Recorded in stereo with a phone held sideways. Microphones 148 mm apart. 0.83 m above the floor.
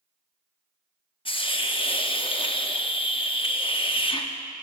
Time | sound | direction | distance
1.2 | a hiss | 35° left (ahead or behind) | 0.6 m